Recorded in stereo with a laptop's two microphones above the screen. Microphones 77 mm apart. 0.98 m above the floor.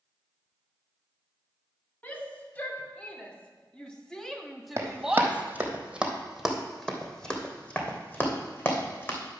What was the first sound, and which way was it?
A shout, 25° left (ahead or behind).